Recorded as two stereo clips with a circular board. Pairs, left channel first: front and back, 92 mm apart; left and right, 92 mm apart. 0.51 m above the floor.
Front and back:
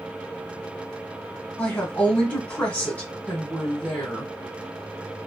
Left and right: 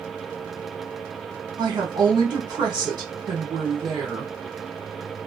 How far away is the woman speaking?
About 1.1 m.